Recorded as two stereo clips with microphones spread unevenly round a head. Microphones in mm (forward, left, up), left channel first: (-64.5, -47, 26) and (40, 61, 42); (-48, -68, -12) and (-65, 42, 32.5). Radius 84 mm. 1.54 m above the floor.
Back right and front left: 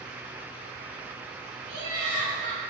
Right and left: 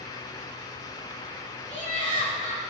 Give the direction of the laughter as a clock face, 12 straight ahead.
10 o'clock.